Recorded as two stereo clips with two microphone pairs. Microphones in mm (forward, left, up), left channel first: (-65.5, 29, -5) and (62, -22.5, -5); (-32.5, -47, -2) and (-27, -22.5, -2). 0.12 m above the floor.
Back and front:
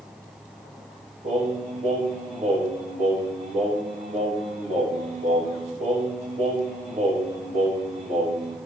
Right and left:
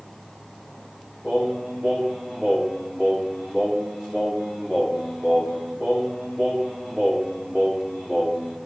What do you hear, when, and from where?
1.2 s singing: 10° right, 5.5 m